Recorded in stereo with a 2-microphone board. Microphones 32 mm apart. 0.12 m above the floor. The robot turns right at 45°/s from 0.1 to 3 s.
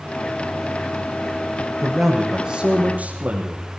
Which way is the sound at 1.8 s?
175° left.